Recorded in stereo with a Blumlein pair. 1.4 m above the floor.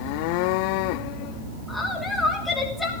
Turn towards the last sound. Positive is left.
turn(degrees=5)